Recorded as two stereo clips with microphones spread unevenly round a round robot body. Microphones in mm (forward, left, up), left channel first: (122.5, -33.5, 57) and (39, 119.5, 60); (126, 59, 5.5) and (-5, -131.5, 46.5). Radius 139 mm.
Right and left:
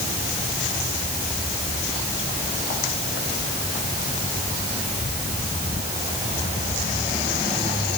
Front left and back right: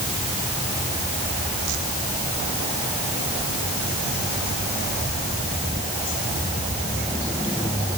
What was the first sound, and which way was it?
Only background noise.